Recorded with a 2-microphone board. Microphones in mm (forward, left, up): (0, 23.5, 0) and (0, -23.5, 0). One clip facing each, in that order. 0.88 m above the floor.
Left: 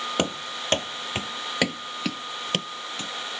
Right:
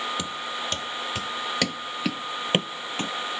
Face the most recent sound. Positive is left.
turn(degrees=-40)  # may be behind; listen again after turning